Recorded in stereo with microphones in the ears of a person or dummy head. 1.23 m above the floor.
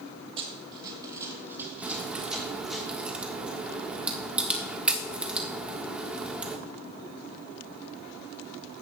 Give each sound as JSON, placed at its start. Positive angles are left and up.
{"t": 0.4, "sound": "running footsteps", "side_deg": -30, "distance_m": 1.9}
{"t": 1.8, "sound": "a crack", "side_deg": -5, "distance_m": 1.6}